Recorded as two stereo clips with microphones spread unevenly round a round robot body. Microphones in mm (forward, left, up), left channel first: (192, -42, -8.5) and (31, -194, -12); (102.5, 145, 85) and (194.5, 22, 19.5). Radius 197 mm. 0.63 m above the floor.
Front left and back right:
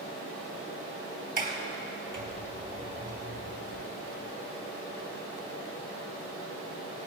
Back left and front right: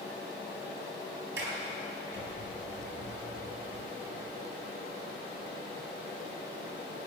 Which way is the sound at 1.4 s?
85° right.